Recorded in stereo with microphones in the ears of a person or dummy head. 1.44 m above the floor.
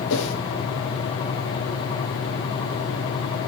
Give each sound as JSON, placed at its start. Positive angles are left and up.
{"t": 0.1, "sound": "a whoosh", "side_deg": 75, "distance_m": 2.5}